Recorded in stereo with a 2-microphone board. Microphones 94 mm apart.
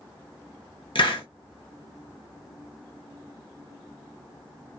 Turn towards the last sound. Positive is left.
turn(degrees=70)  # may be behind; listen again after turning